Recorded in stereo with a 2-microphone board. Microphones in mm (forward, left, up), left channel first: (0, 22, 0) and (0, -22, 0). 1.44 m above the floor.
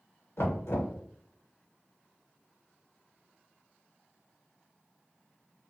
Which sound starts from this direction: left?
Knocking, at 0.4 s.